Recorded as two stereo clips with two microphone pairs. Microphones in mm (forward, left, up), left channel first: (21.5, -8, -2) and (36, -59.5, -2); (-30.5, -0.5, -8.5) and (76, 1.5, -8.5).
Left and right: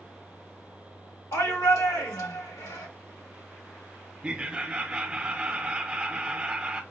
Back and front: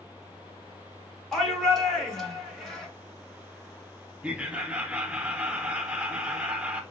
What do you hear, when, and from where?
1.3 s a shout: 90° left, 1.6 m
4.2 s laughter: 55° right, 0.8 m